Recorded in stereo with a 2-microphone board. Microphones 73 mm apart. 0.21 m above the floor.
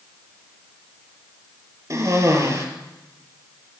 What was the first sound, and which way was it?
A cough, 45° right (ahead or behind).